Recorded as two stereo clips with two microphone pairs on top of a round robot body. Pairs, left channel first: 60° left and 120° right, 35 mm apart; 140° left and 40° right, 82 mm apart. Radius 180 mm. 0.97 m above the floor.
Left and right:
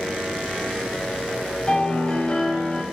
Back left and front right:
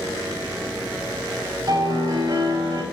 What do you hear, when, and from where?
1.7 s a piano: 5° left, 7.5 m